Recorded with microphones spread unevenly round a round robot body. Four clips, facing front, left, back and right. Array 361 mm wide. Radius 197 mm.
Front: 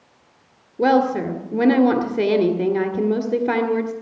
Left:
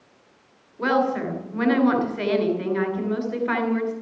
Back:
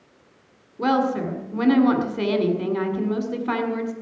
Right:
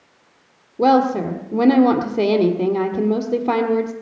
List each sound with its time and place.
0.8 s a woman speaking: 55° right, 1.9 m